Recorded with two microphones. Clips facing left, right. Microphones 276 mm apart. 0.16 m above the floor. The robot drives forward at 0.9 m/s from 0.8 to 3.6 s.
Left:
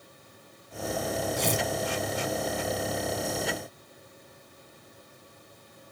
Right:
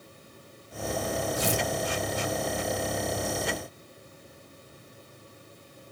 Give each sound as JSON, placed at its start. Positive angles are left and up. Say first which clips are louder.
{"t": 1.4, "sound": "tearing paper", "louder": "even", "side_deg": -5, "distance_m": 1.8}